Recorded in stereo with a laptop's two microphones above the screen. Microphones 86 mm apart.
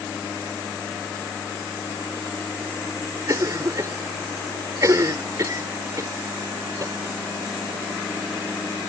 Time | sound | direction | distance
3.3 | a cough | 40° right (ahead or behind) | ?